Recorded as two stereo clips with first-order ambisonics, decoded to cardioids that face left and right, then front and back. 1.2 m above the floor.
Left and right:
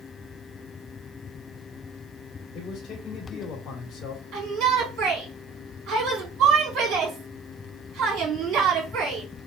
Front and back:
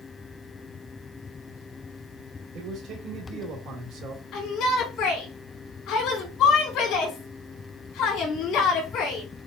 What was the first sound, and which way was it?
A man speaking, 160° left.